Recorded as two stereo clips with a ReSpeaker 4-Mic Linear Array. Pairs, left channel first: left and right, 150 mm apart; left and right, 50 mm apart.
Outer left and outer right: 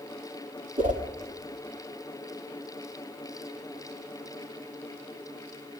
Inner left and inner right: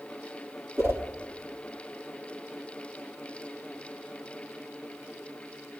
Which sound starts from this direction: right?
A whoosh, at 0.8 s.